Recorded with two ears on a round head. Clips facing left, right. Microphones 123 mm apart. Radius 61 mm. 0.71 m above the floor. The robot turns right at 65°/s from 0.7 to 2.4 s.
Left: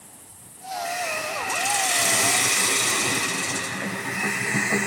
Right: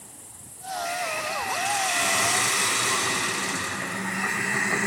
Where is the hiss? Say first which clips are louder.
Left 1 dB; 55° left, 3 m; by 4.9 s 155° left, 3 m.